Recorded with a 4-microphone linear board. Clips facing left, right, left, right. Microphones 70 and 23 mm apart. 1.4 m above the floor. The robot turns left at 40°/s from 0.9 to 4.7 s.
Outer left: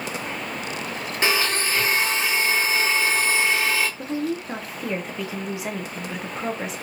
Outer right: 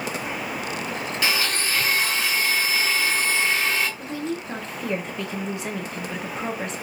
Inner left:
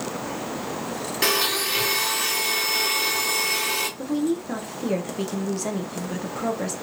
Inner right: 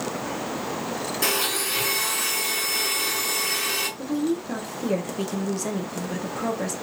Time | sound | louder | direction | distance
1.2 | a blender | outer left 3 dB, inner left 3 dB | 110° left | 1.3 m
4.0 | a woman speaking | outer left 3 dB, inner left 1 dB | 30° left (ahead or behind) | 0.7 m